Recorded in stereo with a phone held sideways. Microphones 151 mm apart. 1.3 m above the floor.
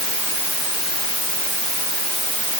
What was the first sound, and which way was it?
Only background noise.